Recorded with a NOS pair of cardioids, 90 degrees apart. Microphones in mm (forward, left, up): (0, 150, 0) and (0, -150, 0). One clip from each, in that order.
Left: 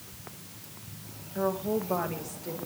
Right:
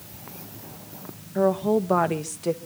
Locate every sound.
1.4 s a woman speaking: 45° right, 2 m; by 2.6 s 70° right, 2 m